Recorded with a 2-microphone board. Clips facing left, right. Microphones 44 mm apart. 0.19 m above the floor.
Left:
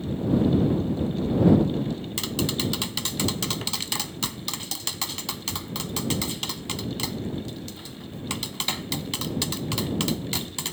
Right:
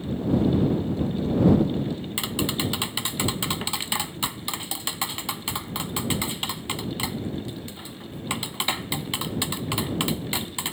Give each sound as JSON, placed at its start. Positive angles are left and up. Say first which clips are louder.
{"t": 2.2, "sound": "tapping", "louder": "right 1 dB", "side_deg": -20}